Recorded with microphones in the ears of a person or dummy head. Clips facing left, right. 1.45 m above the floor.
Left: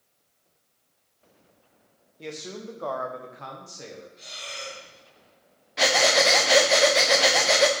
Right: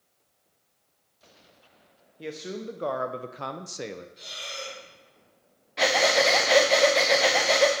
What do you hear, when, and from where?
2.2 s a man speaking: 10° right (ahead or behind), 0.8 m; by 4.1 s 70° right (ahead or behind), 0.6 m
4.2 s breathing: 55° right (ahead or behind), 3 m
5.8 s breathing: 5° left (ahead or behind), 0.5 m